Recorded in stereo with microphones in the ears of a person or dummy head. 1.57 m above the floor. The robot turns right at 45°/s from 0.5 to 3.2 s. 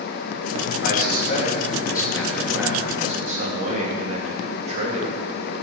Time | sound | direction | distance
0.8 | a man speaking | 105° left | 2.5 m